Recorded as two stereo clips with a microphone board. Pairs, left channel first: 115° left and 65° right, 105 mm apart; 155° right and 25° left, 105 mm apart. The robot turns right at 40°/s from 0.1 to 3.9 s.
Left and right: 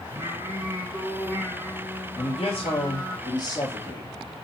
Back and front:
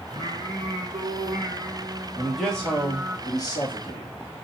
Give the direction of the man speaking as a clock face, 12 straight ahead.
8 o'clock.